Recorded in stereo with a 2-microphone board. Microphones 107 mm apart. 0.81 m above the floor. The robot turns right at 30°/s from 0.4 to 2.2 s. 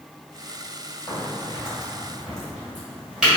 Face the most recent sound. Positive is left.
turn(degrees=-5)  # may be behind; listen again after turning